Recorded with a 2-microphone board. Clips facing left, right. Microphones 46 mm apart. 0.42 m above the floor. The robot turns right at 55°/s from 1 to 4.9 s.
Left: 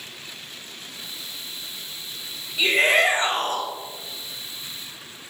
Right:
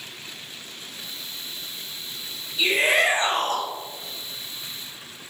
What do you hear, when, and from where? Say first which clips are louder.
2.6 s a shout: left 2 dB; 110° left, 2 m; by 3.7 s 170° left, 2 m